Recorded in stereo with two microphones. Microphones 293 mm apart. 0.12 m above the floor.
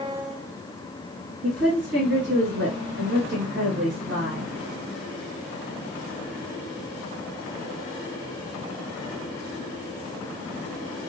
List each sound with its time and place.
1.4 s a woman speaking: 40° right (ahead or behind), 2 m